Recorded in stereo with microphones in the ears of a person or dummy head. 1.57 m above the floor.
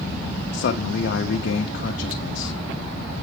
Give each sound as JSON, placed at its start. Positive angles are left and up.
{"t": 0.5, "sound": "a man speaking", "side_deg": 65, "distance_m": 0.6}